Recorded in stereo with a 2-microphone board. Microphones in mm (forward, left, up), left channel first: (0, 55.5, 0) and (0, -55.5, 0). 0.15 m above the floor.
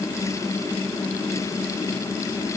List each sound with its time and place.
Only background noise.